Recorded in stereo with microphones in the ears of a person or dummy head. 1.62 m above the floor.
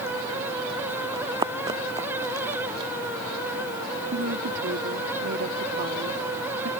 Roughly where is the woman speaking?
Right.